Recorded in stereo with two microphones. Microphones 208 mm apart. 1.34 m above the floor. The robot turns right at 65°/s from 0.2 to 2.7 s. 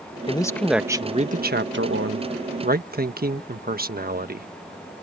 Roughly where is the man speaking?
Behind left.